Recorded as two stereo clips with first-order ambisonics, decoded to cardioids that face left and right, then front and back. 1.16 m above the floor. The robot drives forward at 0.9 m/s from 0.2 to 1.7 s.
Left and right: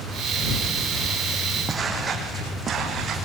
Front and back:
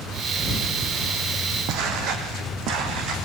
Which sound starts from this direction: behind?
Footsteps, at 1.7 s.